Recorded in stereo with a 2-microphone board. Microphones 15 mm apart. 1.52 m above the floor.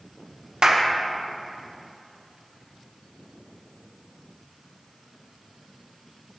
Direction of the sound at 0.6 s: 55° right (ahead or behind).